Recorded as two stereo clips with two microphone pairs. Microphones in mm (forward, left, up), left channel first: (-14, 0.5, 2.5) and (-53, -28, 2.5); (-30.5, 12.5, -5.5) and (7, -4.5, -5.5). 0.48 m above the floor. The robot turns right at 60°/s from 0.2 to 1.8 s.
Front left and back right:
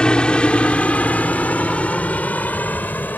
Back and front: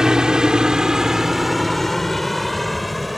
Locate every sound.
0.0 s a helicopter: 15° left; by 3.2 s 65° left